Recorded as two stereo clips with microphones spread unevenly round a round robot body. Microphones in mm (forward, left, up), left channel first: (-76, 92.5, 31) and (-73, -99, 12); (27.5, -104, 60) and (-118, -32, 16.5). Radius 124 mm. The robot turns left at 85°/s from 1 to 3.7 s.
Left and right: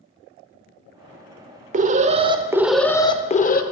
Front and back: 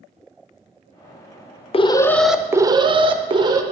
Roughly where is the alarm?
Right.